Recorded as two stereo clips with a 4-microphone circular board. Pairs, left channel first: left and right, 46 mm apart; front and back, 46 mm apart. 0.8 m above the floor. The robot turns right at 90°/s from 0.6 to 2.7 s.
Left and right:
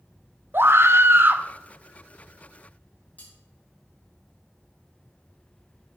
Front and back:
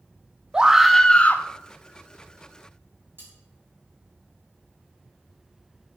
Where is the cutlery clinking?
145° left, 4 m.